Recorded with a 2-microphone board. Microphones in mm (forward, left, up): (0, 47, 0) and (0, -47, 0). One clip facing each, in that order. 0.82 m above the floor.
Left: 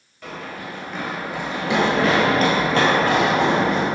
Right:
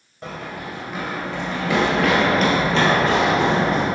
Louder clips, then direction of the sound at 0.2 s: Right 1 dB; 30° right (ahead or behind).